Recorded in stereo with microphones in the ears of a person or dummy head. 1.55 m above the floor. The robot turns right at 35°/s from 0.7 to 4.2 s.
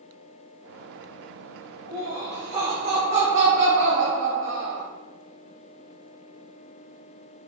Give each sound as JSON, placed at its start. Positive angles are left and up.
{"t": 1.9, "sound": "laughter", "azimuth_deg": 180, "distance_m": 0.7}